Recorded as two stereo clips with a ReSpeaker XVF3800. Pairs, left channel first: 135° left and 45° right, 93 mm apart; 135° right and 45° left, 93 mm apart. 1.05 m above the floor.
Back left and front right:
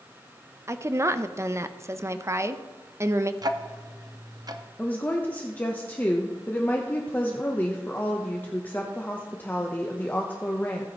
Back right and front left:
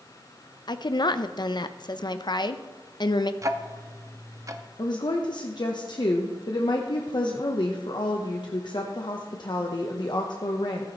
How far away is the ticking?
About 0.7 m.